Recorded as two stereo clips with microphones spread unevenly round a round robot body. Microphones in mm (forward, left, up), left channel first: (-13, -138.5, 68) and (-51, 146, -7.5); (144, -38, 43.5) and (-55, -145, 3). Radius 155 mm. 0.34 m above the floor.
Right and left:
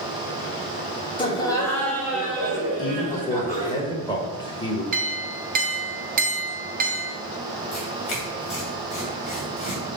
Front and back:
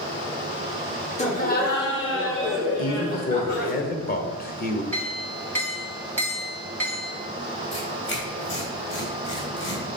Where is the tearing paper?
5° right, 3 m.